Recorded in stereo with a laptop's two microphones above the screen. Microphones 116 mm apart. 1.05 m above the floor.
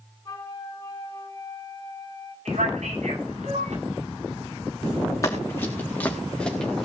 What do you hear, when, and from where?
0.2 s a flute: 30° left (ahead or behind), 4 m
2.5 s a man speaking: 80° right, 8.5 m
5.2 s running footsteps: 25° left (ahead or behind), 4 m; by 6.8 s 5° left (ahead or behind), 4.5 m